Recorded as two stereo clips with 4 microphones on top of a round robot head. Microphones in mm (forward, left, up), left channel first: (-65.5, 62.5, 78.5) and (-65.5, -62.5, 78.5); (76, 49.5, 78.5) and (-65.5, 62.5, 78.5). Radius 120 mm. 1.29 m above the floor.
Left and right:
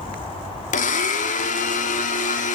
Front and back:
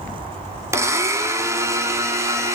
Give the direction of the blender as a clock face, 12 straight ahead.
9 o'clock.